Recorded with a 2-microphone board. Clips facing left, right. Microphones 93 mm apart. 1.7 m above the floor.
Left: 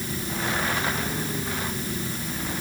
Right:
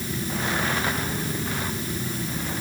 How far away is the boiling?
No boiling in this recording.